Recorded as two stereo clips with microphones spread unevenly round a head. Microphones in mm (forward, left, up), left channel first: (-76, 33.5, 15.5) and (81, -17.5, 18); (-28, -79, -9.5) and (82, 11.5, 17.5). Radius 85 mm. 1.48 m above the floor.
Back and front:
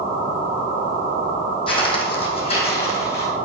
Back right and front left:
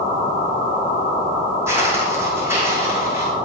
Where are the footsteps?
105° left, 3 m; by 3.3 s 110° left, 4 m.